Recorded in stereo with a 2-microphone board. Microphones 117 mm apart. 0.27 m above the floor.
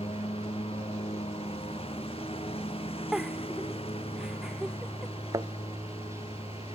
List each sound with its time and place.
0.0 s a lawn mower: 55° left (ahead or behind)
3.1 s a giggle: 5° right (ahead or behind)
5.3 s a thud: 35° right (ahead or behind)